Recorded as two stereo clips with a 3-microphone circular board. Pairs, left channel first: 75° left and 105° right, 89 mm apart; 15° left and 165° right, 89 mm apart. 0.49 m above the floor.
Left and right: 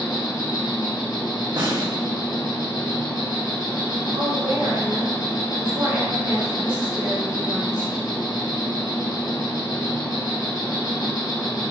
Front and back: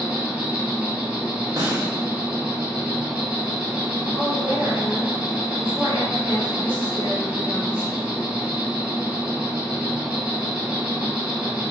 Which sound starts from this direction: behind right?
A snare drum, at 1.6 s.